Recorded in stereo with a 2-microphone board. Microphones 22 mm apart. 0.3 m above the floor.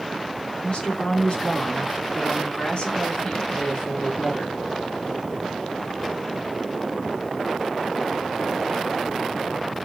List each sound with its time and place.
0.6 s a woman speaking: 55° left (ahead or behind), 4.5 m